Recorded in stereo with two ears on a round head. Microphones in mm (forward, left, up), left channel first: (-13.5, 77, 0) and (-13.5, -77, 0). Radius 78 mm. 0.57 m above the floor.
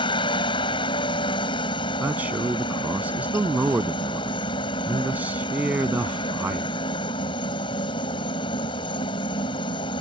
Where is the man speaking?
10° right (ahead or behind).